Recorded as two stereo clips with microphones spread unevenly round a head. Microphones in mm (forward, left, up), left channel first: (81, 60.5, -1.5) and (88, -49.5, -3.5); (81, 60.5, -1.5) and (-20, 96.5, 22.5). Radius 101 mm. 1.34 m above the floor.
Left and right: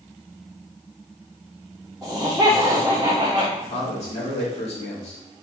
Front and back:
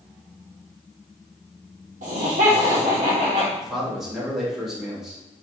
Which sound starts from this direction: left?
A man speaking, at 3.6 s.